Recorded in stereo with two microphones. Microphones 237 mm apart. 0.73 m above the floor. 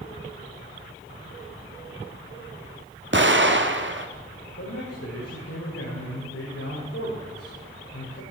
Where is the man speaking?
75° left (ahead or behind), 3.5 m.